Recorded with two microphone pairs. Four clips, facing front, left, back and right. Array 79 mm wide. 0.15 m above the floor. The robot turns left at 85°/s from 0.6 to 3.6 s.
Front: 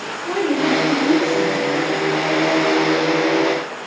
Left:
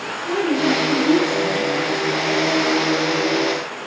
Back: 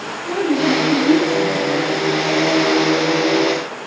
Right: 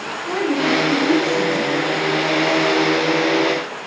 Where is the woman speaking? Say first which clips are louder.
Even, back 1 dB; 5° left, 6 m; by 1.7 s 90° right, 6 m.